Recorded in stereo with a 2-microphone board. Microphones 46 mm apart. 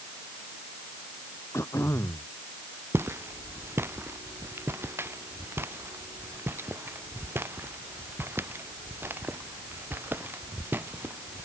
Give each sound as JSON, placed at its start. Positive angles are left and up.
{"t": 1.5, "sound": "throat clearing", "side_deg": 70}
{"t": 2.9, "sound": "footsteps", "side_deg": -65}